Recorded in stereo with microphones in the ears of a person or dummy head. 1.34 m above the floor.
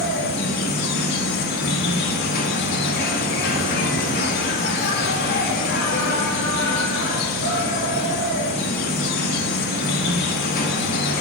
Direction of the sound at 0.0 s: 60° left (ahead or behind).